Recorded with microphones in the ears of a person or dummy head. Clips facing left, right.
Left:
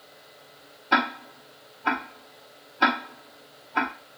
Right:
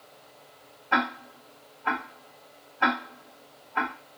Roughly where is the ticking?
Left.